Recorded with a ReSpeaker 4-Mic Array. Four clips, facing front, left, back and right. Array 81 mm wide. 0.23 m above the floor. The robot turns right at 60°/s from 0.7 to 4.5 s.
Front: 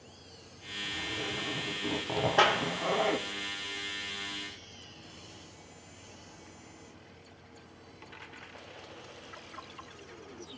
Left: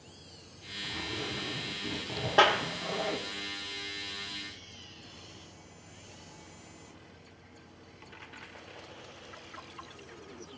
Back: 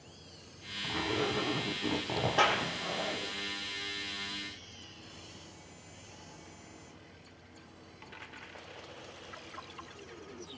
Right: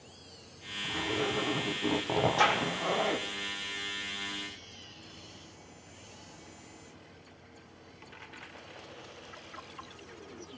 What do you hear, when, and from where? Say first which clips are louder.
0.8 s a zipper: right 6 dB, back 6 dB; 165° right, 1.0 m; by 3.3 s 20° right, 1.0 m
2.4 s a clap: left 6 dB, front 3 dB; 85° left, 7 m; by 2.6 s 100° left, 7 m